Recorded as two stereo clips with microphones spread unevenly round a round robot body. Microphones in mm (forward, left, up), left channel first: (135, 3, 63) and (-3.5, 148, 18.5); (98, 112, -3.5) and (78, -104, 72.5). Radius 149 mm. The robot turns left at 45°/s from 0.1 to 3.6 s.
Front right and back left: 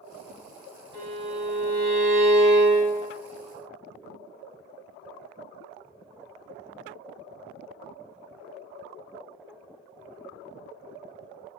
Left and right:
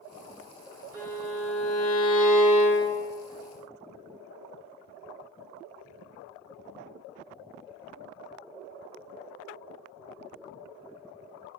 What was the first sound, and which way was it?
A violin, 135° right.